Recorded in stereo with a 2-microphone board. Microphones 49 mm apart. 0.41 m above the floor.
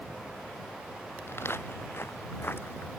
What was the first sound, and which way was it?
Footsteps, 55° left (ahead or behind).